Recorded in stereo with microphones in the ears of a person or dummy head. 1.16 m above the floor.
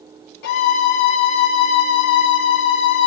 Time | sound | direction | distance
0.4 | a violin | 60° left (ahead or behind) | 1.3 m